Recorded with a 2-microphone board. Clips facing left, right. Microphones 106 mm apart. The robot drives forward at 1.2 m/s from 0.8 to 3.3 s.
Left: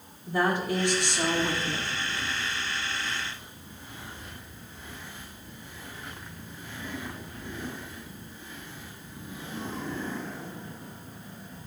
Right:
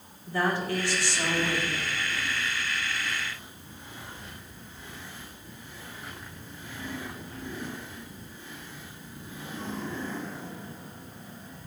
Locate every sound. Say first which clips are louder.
0.3 s a woman speaking: left 2 dB; 15° left (ahead or behind), 2.5 m; by 2.0 s 35° left (ahead or behind), 1.3 m